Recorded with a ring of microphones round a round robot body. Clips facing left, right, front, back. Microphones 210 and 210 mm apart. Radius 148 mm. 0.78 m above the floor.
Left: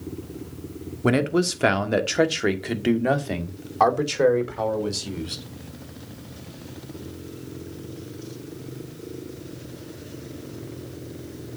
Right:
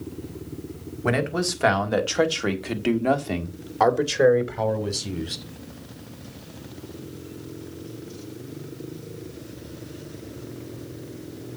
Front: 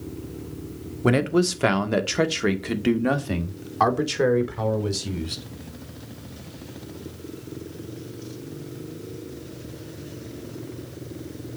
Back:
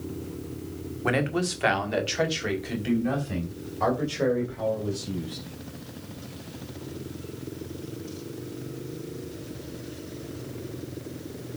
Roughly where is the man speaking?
Ahead left.